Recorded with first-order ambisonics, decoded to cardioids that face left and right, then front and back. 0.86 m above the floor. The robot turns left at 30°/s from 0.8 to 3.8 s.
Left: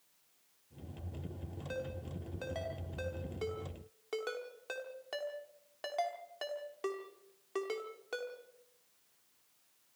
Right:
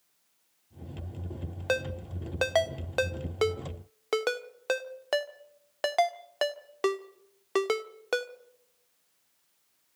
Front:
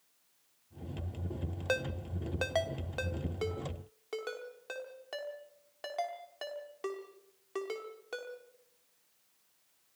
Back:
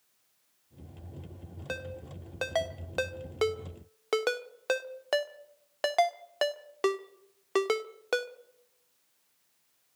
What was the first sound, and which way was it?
A ringtone, 70° right.